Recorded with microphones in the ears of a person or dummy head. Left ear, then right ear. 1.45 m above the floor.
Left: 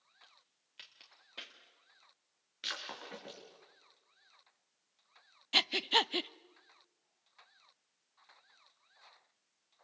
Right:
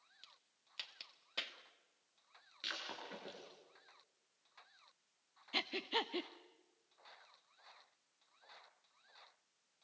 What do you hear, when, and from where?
0.2 s a crack: 30° right (ahead or behind), 2 m
2.6 s breaking glass: 20° left (ahead or behind), 5 m
5.5 s breathing: 30° left (ahead or behind), 0.6 m